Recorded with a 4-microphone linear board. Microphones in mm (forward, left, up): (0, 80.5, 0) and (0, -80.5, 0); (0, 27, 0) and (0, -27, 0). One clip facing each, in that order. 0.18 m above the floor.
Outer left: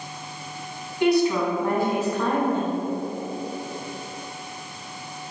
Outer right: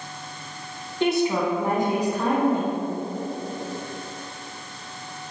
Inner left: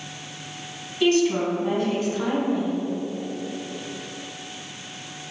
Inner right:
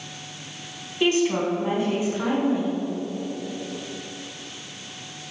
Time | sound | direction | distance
1.0 | a woman speaking | 25° right (ahead or behind) | 1.2 m